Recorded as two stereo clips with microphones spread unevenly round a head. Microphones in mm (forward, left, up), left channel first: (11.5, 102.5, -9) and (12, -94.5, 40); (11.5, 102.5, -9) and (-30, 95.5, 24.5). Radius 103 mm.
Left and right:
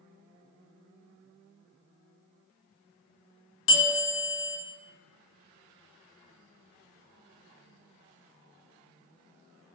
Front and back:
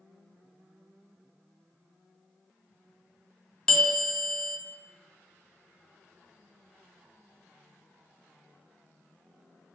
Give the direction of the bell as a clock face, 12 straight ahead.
10 o'clock.